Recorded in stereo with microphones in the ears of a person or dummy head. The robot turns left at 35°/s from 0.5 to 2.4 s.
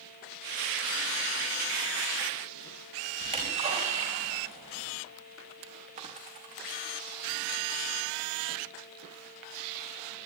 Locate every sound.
3.2 s a splash: 30° right (ahead or behind), 4 m
6.0 s a dropped coin: 35° right (ahead or behind), 2 m